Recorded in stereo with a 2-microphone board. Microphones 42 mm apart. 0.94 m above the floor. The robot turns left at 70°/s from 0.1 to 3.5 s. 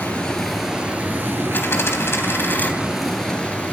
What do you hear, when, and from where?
0.0 s running water: 30° left, 7 m; by 3.7 s 155° left, 7 m
1.5 s a dropped coin: 125° left, 3 m; by 2.7 s 40° left, 3 m